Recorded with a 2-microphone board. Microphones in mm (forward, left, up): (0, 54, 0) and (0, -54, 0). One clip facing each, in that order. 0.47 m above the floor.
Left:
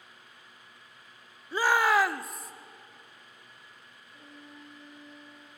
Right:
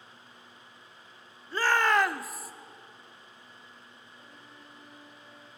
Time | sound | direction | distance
1.5 | a shout | 15° left (ahead or behind) | 0.9 m
4.1 | a violin | 70° left (ahead or behind) | 7 m